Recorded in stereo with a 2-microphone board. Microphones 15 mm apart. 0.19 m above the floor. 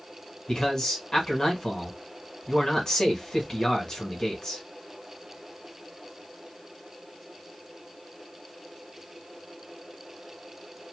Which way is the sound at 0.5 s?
40° left (ahead or behind).